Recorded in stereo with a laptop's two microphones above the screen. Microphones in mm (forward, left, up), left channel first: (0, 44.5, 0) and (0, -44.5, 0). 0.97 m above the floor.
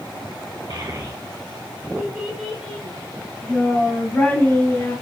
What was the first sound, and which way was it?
A child speaking, 50° right (ahead or behind).